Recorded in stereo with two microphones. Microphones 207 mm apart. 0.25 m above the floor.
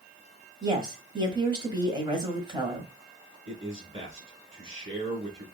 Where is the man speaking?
30° right (ahead or behind), 2.5 m.